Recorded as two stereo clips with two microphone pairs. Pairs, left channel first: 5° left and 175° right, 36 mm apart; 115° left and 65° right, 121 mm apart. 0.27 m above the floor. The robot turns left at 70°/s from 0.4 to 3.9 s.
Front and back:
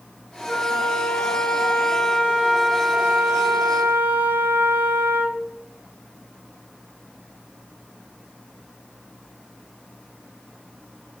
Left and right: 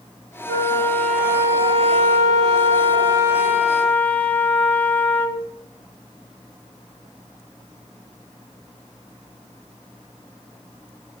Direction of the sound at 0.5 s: 70° left.